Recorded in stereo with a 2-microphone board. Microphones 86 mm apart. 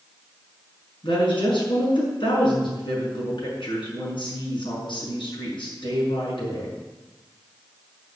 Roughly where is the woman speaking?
Left.